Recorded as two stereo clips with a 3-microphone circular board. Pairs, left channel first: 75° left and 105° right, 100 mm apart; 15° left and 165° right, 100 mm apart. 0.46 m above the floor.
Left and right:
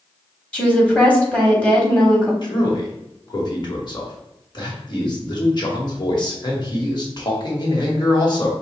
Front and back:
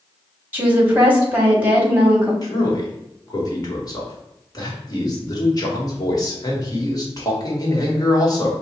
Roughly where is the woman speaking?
Behind left.